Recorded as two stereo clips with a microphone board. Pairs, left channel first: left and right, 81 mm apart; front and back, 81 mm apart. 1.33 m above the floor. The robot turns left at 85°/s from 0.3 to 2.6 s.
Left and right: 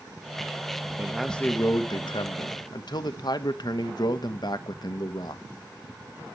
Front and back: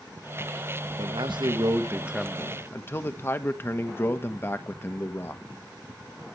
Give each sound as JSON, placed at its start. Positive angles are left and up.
{"t": 1.0, "sound": "a man speaking", "azimuth_deg": -160, "distance_m": 1.3}